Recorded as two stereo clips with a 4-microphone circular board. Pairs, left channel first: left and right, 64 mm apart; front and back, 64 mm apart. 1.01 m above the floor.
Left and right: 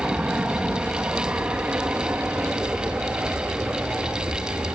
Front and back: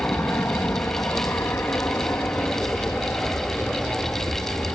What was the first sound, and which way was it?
An aircraft, 25° right.